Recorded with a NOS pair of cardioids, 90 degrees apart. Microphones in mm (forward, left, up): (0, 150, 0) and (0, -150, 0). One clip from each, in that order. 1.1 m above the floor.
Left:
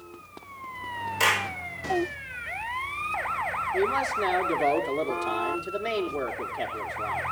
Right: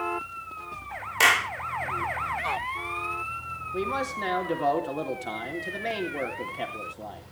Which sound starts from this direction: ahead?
A man speaking, at 3.7 s.